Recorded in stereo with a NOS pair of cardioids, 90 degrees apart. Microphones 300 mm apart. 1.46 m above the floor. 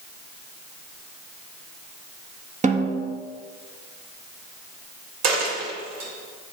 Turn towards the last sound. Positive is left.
turn(degrees=-65)